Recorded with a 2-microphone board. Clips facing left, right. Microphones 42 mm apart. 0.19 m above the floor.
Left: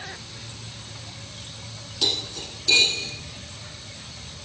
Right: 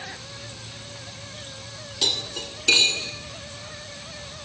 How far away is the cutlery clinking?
About 1.2 m.